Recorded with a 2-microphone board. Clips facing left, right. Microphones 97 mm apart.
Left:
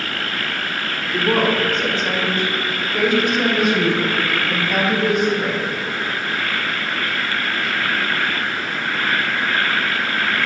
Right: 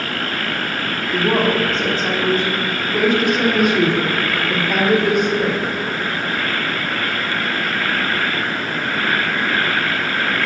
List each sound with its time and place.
1.1 s a woman speaking: 30° right (ahead or behind), 3 m; by 5.7 s 60° right (ahead or behind), 5.5 m